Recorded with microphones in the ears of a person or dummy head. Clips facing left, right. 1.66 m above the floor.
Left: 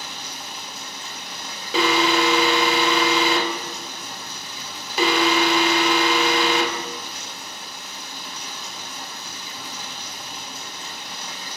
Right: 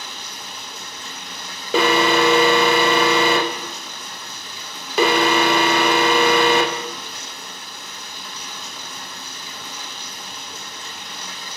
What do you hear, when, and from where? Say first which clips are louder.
0.0 s running water: even; 60° right (ahead or behind), 3 m
1.7 s an alarm: right 3 dB; 45° right (ahead or behind), 0.5 m